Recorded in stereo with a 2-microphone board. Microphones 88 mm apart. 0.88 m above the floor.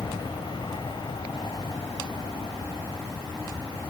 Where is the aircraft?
60° left (ahead or behind); by 3.9 s 70° left (ahead or behind).